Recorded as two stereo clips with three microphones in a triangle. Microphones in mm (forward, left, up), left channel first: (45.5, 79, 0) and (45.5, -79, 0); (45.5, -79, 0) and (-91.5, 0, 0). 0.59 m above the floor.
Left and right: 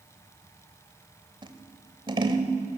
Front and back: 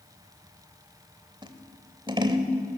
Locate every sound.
1.4 s scissors: 150° right, 1.3 m